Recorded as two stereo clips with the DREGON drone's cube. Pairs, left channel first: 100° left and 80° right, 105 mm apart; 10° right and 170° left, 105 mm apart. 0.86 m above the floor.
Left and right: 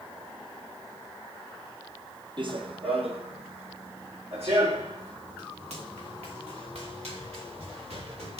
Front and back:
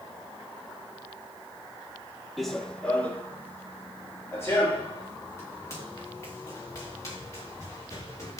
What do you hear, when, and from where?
2.4 s running footsteps: 100° right, 1.4 m; by 8.4 s 70° right, 8 m